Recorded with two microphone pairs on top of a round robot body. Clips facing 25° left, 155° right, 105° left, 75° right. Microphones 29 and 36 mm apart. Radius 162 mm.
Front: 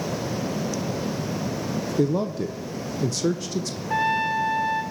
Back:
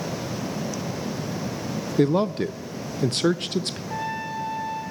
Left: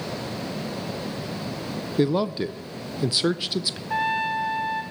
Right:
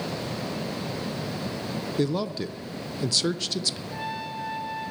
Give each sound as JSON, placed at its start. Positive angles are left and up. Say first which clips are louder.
{"t": 2.0, "sound": "a man speaking", "louder": "back 4 dB, left 5 dB", "azimuth_deg": 175, "distance_m": 0.6}
{"t": 3.9, "sound": "a trumpet", "louder": "front 9 dB, left 9 dB", "azimuth_deg": 65, "distance_m": 1.4}